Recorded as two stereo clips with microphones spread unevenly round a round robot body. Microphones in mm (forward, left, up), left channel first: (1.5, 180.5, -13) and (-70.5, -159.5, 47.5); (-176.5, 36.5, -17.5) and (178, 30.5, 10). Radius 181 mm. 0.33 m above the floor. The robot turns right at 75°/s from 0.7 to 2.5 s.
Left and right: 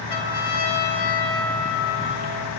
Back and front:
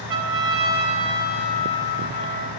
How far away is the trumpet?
About 5.5 m.